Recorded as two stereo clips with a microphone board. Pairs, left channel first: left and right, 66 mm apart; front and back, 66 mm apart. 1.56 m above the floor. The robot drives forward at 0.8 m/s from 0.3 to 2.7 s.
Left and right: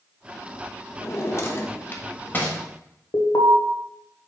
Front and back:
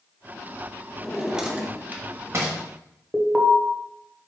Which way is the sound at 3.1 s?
90° left.